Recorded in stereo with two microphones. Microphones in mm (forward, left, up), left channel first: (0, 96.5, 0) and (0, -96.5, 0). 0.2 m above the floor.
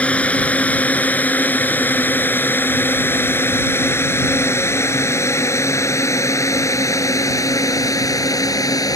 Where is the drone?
5° left (ahead or behind); by 9.0 s 20° left (ahead or behind).